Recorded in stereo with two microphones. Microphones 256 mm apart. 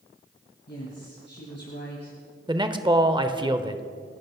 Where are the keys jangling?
I don't hear keys jangling.